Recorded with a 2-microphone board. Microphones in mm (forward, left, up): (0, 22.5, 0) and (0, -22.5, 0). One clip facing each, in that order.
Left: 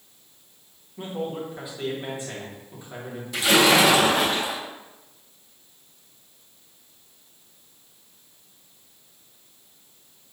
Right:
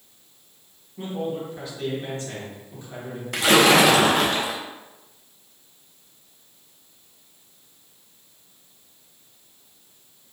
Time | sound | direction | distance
1.0 | a man speaking | 15° left (ahead or behind) | 1.2 m
3.3 | a splash | 60° right (ahead or behind) | 0.7 m